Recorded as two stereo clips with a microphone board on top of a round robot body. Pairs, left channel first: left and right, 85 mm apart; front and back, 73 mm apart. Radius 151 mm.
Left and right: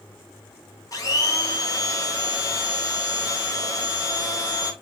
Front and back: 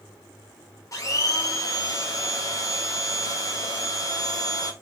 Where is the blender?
40° left, 1.3 m.